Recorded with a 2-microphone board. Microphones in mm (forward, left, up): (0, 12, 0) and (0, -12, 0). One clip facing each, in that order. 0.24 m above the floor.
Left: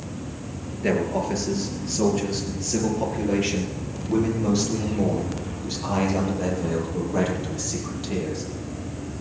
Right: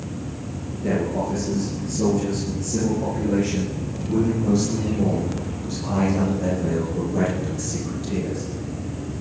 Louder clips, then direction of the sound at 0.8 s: Even; 50° left (ahead or behind).